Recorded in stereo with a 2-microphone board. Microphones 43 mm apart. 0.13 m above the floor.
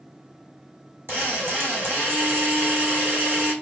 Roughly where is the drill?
Right.